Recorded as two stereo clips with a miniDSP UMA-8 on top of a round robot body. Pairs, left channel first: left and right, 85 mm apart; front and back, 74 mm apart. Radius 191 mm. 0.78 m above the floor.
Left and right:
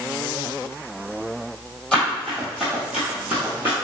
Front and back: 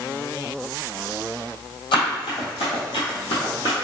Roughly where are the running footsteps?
Ahead.